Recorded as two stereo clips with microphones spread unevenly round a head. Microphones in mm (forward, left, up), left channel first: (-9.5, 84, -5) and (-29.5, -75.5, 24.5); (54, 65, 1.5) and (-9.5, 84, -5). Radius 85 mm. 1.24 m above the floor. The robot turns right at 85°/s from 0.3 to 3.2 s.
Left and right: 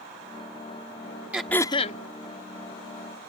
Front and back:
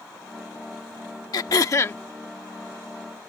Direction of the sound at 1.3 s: 20° right.